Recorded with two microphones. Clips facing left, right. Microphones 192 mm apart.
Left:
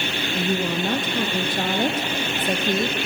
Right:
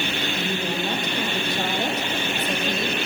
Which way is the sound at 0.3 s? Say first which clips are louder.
Left 7 dB; 50° left (ahead or behind).